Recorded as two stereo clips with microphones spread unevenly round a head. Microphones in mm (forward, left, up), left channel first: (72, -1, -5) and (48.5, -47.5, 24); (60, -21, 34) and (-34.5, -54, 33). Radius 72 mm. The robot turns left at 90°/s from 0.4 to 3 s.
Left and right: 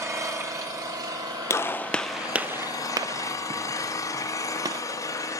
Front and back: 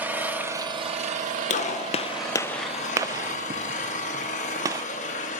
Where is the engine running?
85° right, 1.3 m; by 5.4 s 40° left, 1.3 m.